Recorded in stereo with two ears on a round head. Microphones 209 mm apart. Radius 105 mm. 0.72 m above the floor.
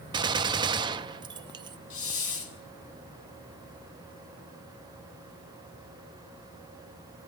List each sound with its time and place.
0.1 s a gunshot: 20° right (ahead or behind), 0.6 m
1.9 s a hiss: 60° left (ahead or behind), 3.5 m